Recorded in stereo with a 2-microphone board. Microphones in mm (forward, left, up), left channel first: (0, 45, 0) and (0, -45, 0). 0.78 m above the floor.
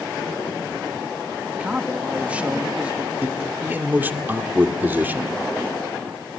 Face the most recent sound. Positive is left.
turn(degrees=-20)  # may be behind; listen again after turning